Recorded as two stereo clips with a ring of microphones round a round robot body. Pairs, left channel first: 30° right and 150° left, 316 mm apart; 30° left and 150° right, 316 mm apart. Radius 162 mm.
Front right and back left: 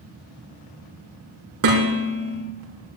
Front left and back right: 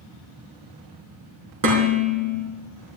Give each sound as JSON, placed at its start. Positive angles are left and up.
{"t": 1.6, "sound": "dishes clattering", "azimuth_deg": -175, "distance_m": 5.0}